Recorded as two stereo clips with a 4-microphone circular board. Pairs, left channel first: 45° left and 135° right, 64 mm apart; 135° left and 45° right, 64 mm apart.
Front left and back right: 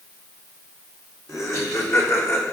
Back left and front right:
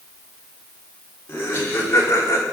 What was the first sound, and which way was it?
Laughter, 80° left.